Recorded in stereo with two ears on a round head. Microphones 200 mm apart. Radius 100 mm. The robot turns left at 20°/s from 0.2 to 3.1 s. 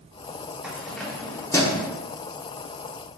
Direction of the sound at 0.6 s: 5° right (ahead or behind).